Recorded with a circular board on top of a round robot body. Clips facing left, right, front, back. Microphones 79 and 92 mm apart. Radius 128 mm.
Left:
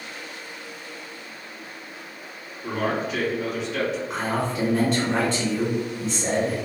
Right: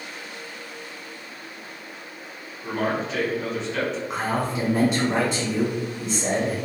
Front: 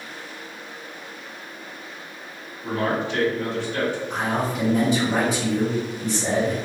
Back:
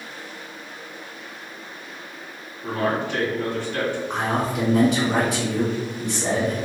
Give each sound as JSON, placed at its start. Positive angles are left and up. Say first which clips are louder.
{"t": 2.6, "sound": "a man speaking", "louder": "even, even", "azimuth_deg": 175, "distance_m": 1.7}
{"t": 4.1, "sound": "a man speaking", "louder": "even, back 1 dB", "azimuth_deg": -170, "distance_m": 1.7}